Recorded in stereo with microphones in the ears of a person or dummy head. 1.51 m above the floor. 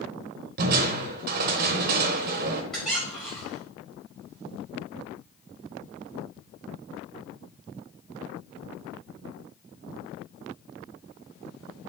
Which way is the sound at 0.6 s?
55° right (ahead or behind).